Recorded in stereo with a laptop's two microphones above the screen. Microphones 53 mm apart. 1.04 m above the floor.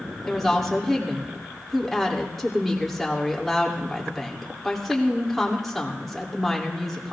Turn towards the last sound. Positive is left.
turn(degrees=5)  # may be behind; listen again after turning